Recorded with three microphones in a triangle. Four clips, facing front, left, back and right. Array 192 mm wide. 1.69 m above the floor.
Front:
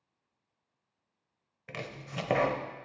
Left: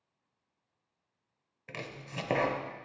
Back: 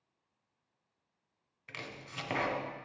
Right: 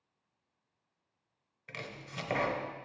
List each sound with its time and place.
1.7 s chopping: 35° left, 0.9 m